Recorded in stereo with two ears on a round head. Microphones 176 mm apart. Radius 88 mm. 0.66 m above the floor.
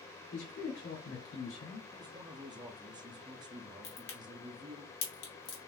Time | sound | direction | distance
0.3 | a man speaking | 60° left (ahead or behind) | 1.7 m
1.9 | a man speaking | 20° right (ahead or behind) | 0.8 m
3.8 | a crack | 55° left (ahead or behind) | 1.5 m